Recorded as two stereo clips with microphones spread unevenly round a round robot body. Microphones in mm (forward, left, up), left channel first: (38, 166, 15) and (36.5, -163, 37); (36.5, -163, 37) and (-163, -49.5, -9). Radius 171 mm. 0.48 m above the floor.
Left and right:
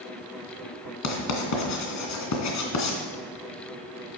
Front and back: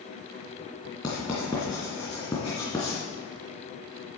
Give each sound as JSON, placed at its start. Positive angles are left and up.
{"t": 1.0, "sound": "writing", "azimuth_deg": 50, "distance_m": 2.5}